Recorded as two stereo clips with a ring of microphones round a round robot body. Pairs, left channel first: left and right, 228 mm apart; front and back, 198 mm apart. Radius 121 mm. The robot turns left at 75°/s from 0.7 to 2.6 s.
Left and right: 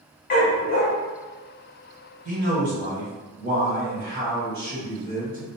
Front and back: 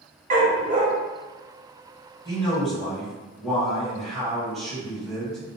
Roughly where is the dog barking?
Behind left.